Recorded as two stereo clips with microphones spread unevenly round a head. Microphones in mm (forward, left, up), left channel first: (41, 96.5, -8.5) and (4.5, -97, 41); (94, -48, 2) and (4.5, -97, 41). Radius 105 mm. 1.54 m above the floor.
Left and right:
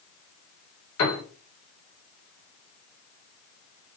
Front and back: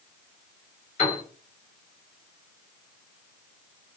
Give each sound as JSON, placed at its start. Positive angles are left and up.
{"t": 1.0, "sound": "a piano", "azimuth_deg": 70, "distance_m": 1.4}